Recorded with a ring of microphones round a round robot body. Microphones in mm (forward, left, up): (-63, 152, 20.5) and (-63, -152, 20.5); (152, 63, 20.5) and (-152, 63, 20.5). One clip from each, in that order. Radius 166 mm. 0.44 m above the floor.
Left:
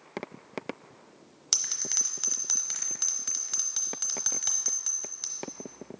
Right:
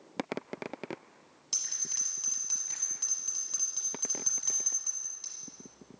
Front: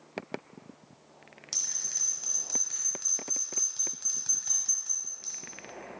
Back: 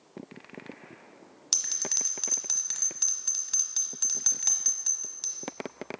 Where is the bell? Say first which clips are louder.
Left 5 dB, back 3 dB; 130° left, 1.1 m.